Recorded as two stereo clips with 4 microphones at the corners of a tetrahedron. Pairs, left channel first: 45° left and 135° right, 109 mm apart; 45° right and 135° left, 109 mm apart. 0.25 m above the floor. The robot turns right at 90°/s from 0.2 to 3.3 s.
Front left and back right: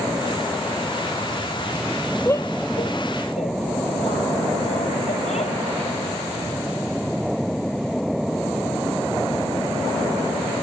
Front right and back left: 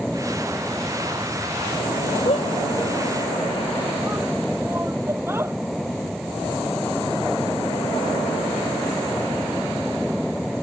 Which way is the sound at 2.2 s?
30° right.